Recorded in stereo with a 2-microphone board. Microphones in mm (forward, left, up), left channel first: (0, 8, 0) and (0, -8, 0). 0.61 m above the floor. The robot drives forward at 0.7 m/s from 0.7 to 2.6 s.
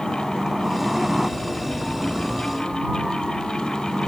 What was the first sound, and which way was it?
A helicopter, 15° right (ahead or behind).